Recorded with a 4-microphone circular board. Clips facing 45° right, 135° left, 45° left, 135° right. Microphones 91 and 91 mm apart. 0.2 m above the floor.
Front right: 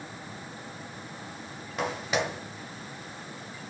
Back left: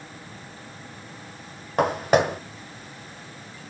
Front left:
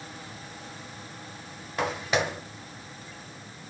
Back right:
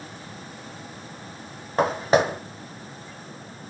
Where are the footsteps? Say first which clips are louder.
Back left 10 dB, back right 7 dB; 175° left, 0.9 m.